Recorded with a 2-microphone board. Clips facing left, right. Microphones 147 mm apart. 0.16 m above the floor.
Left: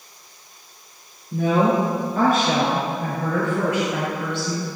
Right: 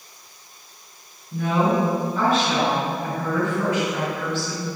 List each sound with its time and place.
1.3 s a woman speaking: 45° left (ahead or behind), 1.7 m; by 4.7 s 70° left (ahead or behind), 3 m